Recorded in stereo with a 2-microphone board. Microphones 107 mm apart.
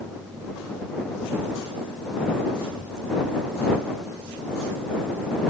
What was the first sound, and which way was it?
Only background noise.